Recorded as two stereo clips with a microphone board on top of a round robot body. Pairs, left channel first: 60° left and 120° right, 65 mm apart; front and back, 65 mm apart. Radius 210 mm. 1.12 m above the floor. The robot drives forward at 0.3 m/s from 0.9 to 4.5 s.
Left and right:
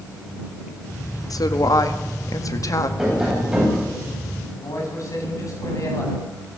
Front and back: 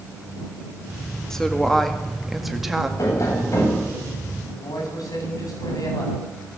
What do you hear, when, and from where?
1.3 s a woman speaking: 80° left, 2 m; by 2.9 s 95° left, 2 m
3.0 s tapping: 40° right, 9 m
4.5 s a man speaking: 25° left, 8.5 m